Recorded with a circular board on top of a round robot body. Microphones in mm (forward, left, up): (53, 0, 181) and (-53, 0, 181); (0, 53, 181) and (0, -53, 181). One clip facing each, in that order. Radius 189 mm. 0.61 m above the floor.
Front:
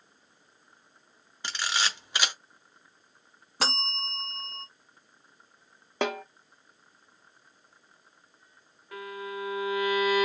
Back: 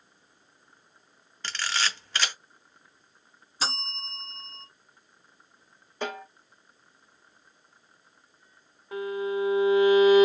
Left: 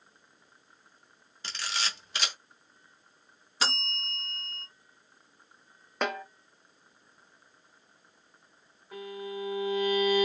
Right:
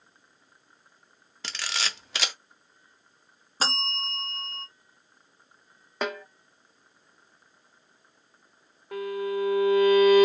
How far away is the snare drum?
About 1.0 m.